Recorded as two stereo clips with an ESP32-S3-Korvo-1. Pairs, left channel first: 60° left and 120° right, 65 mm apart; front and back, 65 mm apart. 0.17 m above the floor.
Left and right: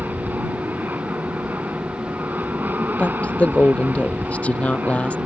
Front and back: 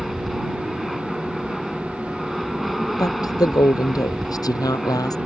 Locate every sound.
0.0 s an aircraft: 90° right
3.0 s a woman speaking: 10° right